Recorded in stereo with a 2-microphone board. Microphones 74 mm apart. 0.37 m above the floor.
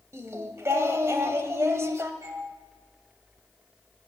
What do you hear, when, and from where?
0.1 s singing: 40° right (ahead or behind), 1.1 m
2.2 s a doorbell: 45° right (ahead or behind), 7 m